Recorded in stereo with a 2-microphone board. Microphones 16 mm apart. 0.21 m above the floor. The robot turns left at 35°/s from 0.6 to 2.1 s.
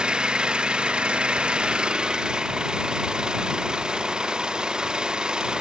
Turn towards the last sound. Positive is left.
turn(degrees=-120)